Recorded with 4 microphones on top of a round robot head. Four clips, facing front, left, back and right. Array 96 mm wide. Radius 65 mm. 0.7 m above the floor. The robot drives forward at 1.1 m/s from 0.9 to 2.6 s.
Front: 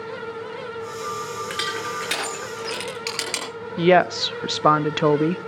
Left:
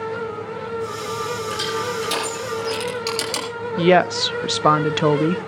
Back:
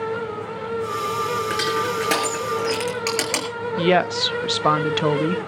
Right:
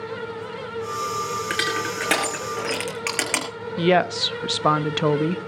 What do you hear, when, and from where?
1.5 s crushing: 120° right, 5 m; by 3.5 s 130° right, 6 m
3.8 s a woman speaking: 45° left, 0.6 m